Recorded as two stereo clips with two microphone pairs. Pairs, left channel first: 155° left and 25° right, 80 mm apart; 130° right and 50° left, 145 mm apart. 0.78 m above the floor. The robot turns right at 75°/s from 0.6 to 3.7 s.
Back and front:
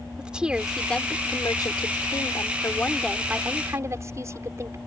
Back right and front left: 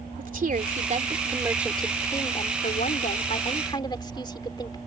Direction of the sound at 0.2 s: 55° left.